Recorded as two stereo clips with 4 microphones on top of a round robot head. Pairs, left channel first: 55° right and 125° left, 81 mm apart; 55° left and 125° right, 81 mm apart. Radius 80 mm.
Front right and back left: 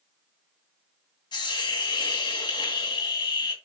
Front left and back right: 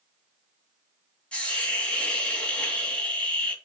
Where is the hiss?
25° right, 3 m.